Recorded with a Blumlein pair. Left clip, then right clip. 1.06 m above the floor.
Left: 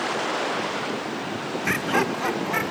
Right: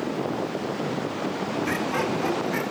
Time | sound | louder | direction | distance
1.6 | laughter | left 5 dB | 65° left | 0.9 m